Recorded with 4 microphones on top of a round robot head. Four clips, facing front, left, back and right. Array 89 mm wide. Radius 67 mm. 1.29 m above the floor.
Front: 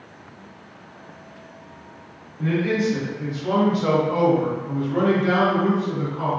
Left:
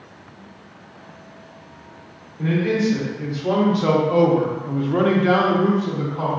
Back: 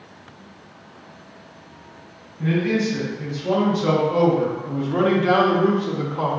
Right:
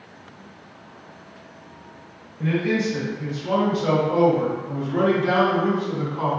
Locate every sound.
2.4 s a man speaking: 60° left, 1.6 m; by 6.3 s 160° left, 1.0 m